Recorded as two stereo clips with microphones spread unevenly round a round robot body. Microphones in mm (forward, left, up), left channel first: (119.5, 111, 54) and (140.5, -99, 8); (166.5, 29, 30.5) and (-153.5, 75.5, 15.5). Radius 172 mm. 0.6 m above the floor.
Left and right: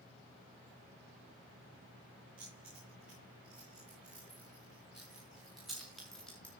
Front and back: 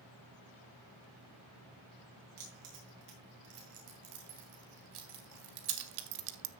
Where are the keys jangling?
170° right, 7 m; by 6.5 s 175° right, 0.7 m.